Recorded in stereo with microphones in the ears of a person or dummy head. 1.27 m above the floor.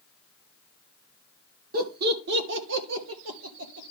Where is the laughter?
50° right (ahead or behind), 1.4 m; by 3.9 s 70° right (ahead or behind), 1.7 m.